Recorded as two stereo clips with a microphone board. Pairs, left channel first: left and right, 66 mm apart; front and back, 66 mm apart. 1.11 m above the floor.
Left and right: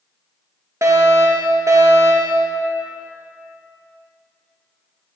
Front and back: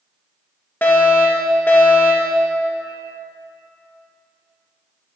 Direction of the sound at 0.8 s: 60° right.